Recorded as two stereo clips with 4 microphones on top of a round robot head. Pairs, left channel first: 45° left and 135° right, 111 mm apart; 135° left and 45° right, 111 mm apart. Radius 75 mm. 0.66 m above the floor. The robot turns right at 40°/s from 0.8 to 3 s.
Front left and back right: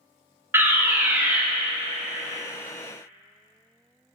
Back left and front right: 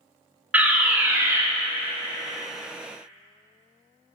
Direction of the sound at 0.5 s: 100° right.